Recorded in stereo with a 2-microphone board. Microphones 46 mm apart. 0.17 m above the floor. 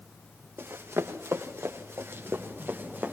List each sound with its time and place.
0.6 s running footsteps: 65° right (ahead or behind), 2.5 m; by 3.1 s 50° right (ahead or behind), 4 m